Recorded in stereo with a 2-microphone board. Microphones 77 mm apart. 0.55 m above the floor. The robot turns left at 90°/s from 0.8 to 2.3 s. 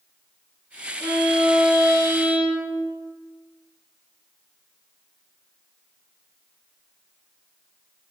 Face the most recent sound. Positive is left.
turn(degrees=-165)